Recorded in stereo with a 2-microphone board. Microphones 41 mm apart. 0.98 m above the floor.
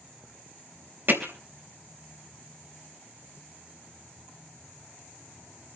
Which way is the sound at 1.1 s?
50° right (ahead or behind).